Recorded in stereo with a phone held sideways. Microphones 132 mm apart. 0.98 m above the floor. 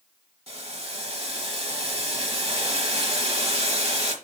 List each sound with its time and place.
0.5 s boiling: 50° right (ahead or behind), 2 m